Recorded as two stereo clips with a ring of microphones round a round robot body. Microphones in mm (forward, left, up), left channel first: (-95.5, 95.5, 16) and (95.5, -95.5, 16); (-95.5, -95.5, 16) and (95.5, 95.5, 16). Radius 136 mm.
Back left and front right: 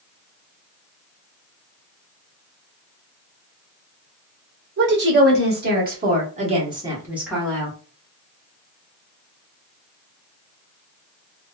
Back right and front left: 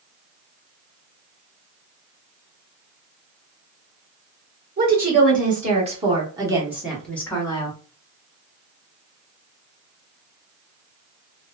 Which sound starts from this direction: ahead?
A woman speaking, at 4.8 s.